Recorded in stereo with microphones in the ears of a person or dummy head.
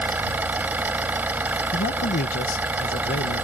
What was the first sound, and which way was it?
An engine running, 10° right (ahead or behind).